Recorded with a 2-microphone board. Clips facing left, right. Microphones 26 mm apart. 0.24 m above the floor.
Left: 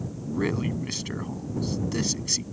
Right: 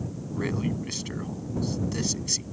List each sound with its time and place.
0.3 s a man speaking: 15° left (ahead or behind)